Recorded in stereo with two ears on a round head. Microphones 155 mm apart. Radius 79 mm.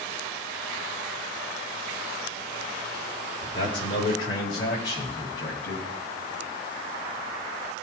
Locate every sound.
3.4 s a man speaking: 30° left (ahead or behind), 3 m; by 5.8 s 20° left (ahead or behind), 4.5 m